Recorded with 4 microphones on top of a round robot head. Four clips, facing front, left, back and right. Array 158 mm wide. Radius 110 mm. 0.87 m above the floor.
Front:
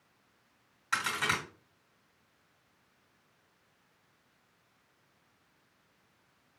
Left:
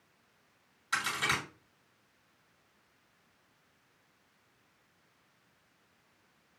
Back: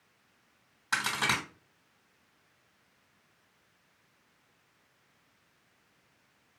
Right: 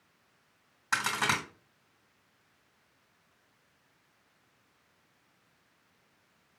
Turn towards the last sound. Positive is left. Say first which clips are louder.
# right 3 dB, back 1 dB
turn(degrees=-120)